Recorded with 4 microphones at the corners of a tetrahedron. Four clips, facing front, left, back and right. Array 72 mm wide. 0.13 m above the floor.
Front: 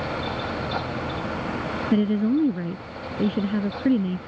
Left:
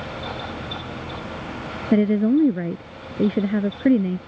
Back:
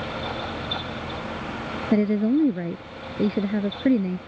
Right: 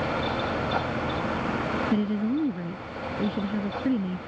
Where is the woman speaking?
110° left.